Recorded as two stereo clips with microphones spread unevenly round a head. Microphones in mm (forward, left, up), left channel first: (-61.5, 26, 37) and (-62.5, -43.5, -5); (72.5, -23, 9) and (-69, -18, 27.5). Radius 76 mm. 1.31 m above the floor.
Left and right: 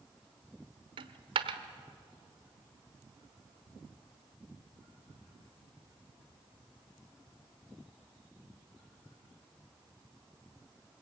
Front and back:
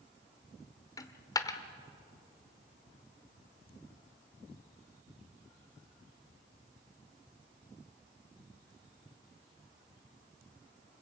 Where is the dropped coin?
65° right, 1.1 m.